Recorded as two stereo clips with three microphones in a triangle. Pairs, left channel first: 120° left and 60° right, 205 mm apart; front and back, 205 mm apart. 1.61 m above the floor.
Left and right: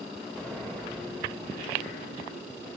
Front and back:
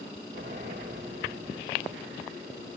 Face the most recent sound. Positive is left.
turn(degrees=-155)